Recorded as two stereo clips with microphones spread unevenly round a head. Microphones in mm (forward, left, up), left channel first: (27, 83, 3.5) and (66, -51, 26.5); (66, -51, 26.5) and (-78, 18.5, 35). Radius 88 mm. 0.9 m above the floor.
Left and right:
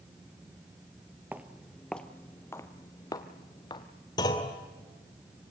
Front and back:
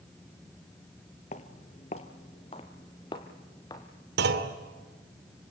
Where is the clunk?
175° left, 2 m.